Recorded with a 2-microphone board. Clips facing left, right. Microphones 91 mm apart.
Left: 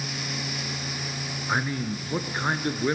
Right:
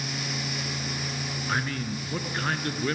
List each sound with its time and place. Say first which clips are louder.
1.5 s a man speaking: left 3 dB; 20° left (ahead or behind), 1.5 m